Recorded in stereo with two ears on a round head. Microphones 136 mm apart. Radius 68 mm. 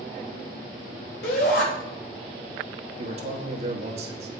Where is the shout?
70° left (ahead or behind), 3.5 m.